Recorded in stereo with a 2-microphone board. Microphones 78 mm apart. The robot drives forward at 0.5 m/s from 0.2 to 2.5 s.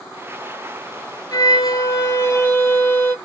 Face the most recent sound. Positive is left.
turn(degrees=35)  # may be behind; listen again after turning